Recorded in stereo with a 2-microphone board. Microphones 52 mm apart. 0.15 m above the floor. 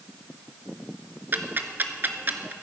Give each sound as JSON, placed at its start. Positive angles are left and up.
{"t": 1.3, "sound": "ticking", "side_deg": -40, "distance_m": 0.7}